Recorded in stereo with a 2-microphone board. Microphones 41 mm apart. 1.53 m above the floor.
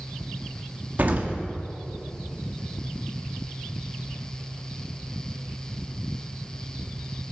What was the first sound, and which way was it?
An explosion, 45° right (ahead or behind).